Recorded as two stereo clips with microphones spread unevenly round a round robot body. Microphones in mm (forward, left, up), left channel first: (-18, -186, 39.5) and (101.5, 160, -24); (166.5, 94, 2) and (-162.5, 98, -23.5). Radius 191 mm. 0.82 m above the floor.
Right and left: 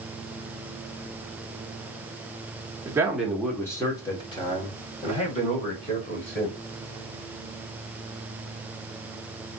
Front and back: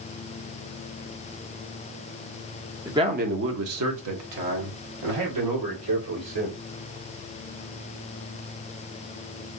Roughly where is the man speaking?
Left.